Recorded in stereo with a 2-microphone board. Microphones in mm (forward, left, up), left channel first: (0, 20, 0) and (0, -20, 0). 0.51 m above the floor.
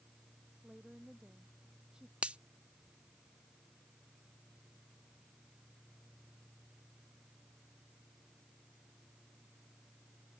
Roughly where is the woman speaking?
Right.